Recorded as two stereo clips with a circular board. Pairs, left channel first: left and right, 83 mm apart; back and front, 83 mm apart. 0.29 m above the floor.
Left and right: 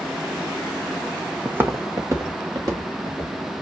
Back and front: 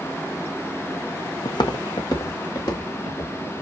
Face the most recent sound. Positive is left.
turn(degrees=-130)